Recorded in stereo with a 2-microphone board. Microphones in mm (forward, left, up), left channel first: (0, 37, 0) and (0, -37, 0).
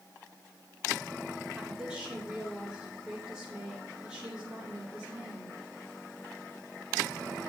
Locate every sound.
1.6 s a woman speaking: 10° right (ahead or behind), 2.5 m